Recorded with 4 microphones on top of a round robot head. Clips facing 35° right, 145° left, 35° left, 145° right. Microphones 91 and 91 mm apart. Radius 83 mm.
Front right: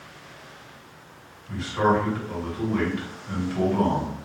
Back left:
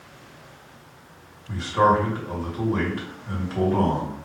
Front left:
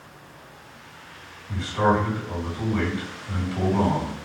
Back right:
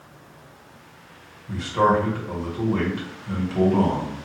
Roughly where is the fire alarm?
No fire alarm in this recording.